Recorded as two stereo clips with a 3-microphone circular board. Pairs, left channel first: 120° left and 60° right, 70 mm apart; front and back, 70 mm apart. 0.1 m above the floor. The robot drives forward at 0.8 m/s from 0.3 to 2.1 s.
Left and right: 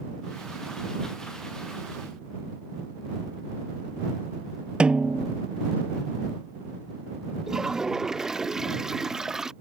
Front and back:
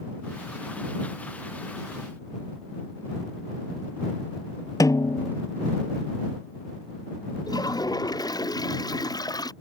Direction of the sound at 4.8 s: 15° left.